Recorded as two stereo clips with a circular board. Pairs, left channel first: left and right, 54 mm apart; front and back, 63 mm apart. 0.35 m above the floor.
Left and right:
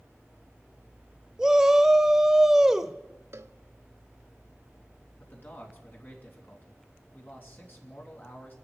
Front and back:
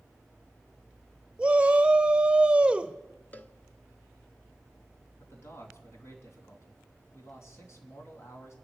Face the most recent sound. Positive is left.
turn(degrees=40)